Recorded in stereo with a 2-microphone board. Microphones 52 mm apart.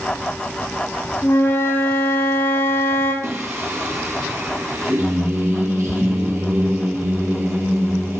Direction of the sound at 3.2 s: 80° right.